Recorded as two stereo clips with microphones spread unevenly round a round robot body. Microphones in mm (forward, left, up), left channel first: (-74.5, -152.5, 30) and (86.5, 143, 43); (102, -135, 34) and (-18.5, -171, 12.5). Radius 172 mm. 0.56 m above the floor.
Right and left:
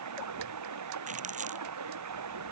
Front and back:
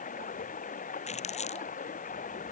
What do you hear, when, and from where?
0.0 s running water: 20° left
1.1 s crumpling: 5° right